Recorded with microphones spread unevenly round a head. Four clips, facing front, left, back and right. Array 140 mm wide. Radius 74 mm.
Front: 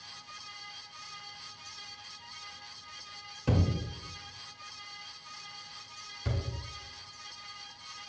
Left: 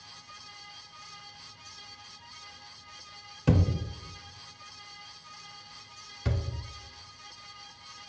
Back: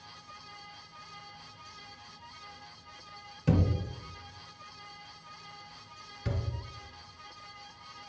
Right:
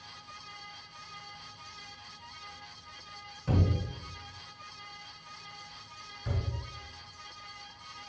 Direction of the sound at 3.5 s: 100° left.